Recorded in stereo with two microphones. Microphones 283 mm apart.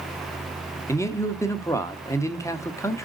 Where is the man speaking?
10° left (ahead or behind), 0.7 m.